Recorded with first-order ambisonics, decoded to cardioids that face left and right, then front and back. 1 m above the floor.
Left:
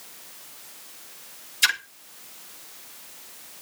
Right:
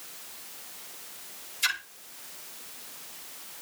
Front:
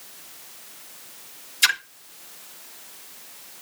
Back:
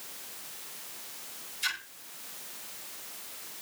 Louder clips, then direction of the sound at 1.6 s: Left 6 dB, front 12 dB; 40° left.